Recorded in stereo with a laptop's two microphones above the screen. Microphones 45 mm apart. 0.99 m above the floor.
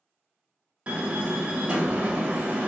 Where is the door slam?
30° right (ahead or behind), 0.7 m.